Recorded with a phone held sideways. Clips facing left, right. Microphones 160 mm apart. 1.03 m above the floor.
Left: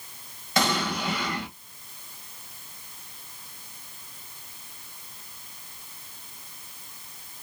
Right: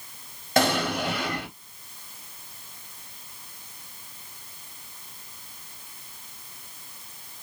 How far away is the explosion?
About 2 m.